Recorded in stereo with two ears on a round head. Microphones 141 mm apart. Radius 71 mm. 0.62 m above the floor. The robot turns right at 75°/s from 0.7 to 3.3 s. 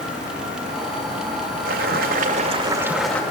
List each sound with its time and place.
1.6 s boiling: 105° right, 2 m; by 3.2 s 10° left, 2 m